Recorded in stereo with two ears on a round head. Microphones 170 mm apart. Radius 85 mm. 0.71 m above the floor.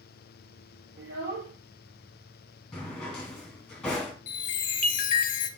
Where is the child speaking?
55° right (ahead or behind), 1.0 m.